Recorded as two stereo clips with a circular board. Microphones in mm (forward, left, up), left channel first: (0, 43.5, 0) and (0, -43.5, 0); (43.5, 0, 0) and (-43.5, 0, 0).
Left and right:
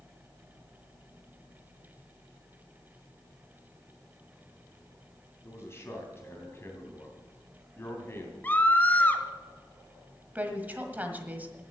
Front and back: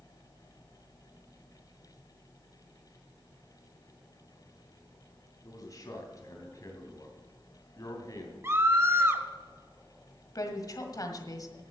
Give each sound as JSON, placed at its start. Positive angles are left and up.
{"t": 5.4, "sound": "a man speaking", "azimuth_deg": 40, "distance_m": 2.5}
{"t": 8.4, "sound": "a scream", "azimuth_deg": 145, "distance_m": 1.1}
{"t": 10.3, "sound": "a woman speaking", "azimuth_deg": -25, "distance_m": 1.6}